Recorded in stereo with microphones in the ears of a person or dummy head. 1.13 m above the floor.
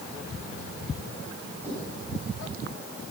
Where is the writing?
10° right (ahead or behind), 8 m.